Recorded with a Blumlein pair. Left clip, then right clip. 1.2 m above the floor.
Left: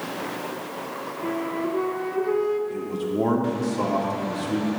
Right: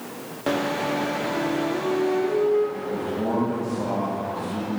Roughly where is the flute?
Ahead left.